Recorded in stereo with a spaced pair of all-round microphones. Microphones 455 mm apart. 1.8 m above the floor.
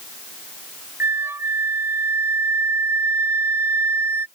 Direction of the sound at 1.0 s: 5° right (ahead or behind).